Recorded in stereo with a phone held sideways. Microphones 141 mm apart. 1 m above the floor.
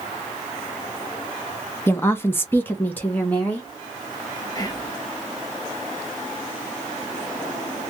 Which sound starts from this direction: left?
Whispering, at 4.5 s.